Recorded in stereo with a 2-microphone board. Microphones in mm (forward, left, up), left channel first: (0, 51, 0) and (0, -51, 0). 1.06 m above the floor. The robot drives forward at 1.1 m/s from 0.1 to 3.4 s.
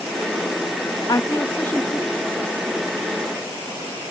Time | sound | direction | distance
1.1 | a woman speaking | 35° left (ahead or behind) | ?